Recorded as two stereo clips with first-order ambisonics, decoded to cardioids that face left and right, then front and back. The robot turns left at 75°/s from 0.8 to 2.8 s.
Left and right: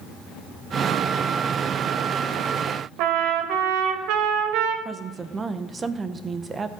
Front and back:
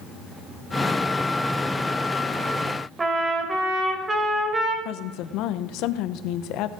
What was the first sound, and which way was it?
A trumpet, 105° right.